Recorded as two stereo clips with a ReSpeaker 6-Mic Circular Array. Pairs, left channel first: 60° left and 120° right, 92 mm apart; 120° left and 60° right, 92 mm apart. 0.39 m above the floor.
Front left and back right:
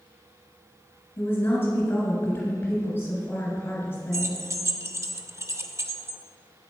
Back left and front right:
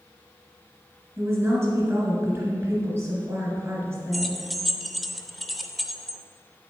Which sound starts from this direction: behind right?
Keys jangling, at 4.1 s.